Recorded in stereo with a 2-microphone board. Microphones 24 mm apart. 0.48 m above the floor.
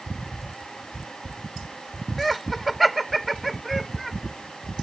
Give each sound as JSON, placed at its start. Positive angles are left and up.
{"t": 2.2, "sound": "laughter", "side_deg": 5}